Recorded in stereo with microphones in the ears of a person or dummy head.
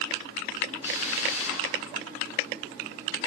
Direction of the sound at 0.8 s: 10° right (ahead or behind).